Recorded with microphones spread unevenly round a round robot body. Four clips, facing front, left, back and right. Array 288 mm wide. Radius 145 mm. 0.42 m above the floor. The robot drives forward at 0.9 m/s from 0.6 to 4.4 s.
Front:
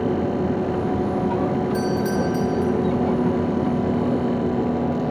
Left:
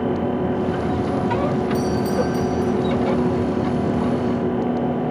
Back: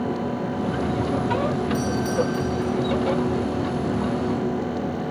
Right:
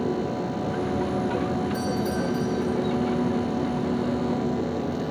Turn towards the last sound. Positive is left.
turn(degrees=70)